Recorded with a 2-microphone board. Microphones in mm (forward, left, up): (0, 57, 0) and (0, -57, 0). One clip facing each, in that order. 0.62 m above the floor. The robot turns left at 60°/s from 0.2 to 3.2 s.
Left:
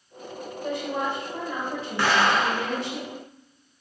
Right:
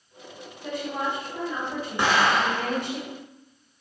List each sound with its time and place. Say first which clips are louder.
0.6 s a woman speaking: left 1 dB; 80° left, 1.9 m; by 3.0 s 60° right, 1.9 m
2.0 s an explosion: even; 160° right, 0.8 m; by 2.8 s 150° left, 0.8 m